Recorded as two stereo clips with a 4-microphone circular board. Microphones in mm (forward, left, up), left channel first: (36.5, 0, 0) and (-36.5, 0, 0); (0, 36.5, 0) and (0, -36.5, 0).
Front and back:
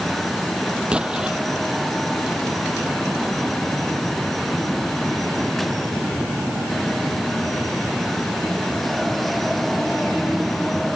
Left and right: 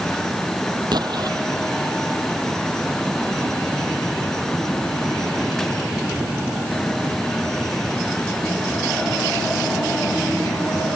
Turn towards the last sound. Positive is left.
turn(degrees=-105)